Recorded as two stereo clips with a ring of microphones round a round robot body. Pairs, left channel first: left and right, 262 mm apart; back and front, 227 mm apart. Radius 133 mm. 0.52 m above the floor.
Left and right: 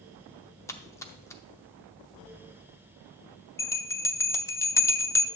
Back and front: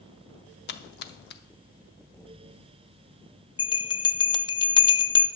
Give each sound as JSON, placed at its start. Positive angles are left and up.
{"t": 0.7, "sound": "a splash", "azimuth_deg": 165, "distance_m": 0.7}
{"t": 3.6, "sound": "a bell", "azimuth_deg": 155, "distance_m": 0.5}